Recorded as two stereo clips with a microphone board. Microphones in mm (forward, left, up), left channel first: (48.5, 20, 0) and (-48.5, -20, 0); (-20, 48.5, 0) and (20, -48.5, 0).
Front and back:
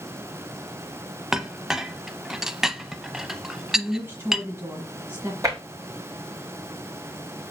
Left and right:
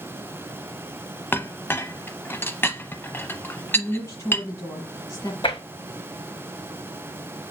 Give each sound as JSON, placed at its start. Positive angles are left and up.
{"t": 1.3, "sound": "a clink", "azimuth_deg": 125, "distance_m": 0.5}
{"t": 3.7, "sound": "a woman speaking", "azimuth_deg": 150, "distance_m": 1.7}
{"t": 5.4, "sound": "tapping", "azimuth_deg": 145, "distance_m": 3.0}